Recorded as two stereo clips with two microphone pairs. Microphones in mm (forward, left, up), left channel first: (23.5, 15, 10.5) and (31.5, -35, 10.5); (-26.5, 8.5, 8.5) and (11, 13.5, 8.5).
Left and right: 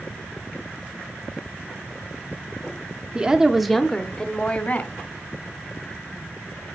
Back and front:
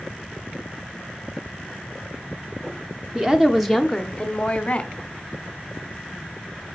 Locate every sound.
3.1 s a woman speaking: 35° right, 1.0 m; by 4.9 s 140° left, 1.4 m